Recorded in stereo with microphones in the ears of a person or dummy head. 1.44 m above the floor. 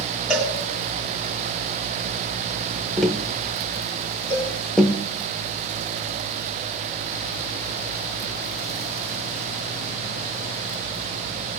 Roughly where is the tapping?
Centre.